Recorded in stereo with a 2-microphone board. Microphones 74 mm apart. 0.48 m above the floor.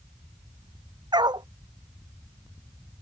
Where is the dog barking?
75° right (ahead or behind).